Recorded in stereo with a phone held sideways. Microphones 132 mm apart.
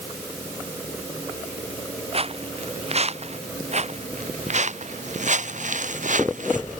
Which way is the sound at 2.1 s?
50° right (ahead or behind).